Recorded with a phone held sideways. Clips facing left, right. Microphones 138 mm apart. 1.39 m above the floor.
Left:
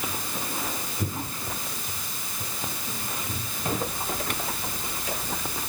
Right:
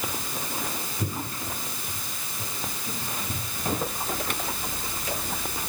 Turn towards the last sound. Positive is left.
No sound to turn to.